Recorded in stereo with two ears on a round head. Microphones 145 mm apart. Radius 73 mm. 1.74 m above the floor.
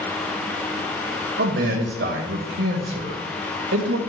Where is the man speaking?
75° right (ahead or behind), 0.8 m.